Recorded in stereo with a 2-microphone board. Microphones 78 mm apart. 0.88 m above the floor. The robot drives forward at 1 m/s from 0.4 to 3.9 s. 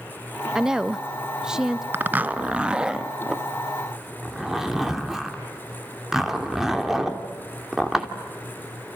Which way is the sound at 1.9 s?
25° right (ahead or behind).